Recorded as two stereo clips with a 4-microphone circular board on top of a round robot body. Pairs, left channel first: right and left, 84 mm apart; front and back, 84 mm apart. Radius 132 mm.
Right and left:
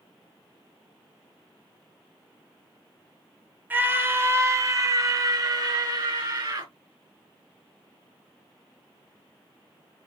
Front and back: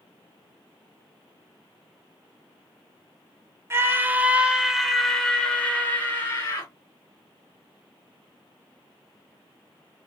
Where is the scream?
145° left, 1.5 m; by 6.7 s 55° left, 2.5 m.